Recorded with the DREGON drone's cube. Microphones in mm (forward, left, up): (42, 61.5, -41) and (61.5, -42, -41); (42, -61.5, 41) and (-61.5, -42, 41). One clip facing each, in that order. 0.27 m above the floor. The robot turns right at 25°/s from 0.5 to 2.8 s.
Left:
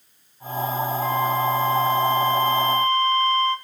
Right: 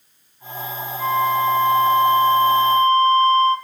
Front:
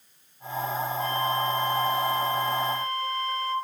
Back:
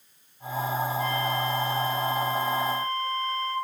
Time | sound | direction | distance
1.0 | a flute | 65° right | 2 m